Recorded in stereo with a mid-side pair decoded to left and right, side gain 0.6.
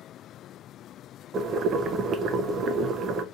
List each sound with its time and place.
1.3 s boiling: 45° right, 0.5 m